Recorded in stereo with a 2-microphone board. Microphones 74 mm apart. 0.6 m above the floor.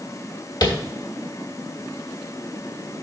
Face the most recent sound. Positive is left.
turn(degrees=60)  # may be behind; listen again after turning